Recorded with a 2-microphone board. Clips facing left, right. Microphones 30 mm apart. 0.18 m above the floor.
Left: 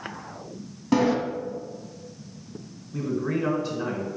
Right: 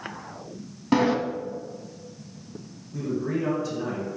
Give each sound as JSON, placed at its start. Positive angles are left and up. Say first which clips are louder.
{"t": 0.9, "sound": "a sliding door", "louder": "even", "side_deg": -20, "distance_m": 0.7}
{"t": 2.9, "sound": "a man speaking", "louder": "left 1 dB", "side_deg": 20, "distance_m": 1.4}